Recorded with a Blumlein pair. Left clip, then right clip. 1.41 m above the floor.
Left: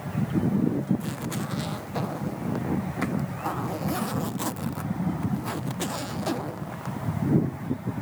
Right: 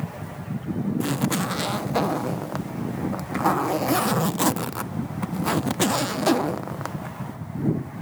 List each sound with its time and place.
1.0 s a zipper: 25° right